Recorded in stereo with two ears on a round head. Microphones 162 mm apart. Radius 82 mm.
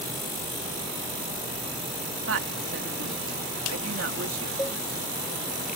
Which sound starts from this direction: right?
A woman speaking, at 2.3 s.